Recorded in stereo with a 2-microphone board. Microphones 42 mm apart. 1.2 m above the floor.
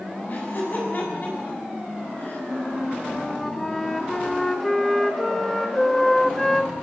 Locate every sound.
0.3 s laughter: 50° left (ahead or behind), 8 m
2.5 s a flute: 5° left (ahead or behind), 1.1 m